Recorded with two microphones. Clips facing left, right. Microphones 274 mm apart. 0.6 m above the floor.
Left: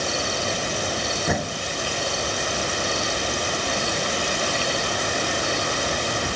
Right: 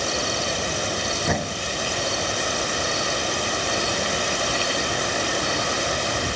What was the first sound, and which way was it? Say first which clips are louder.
A door slam: even; 5° left (ahead or behind).